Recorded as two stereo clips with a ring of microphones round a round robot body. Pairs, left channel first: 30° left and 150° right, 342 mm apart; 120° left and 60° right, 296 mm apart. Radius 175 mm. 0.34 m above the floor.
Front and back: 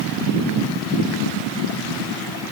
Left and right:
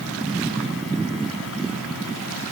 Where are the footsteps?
I don't hear footsteps.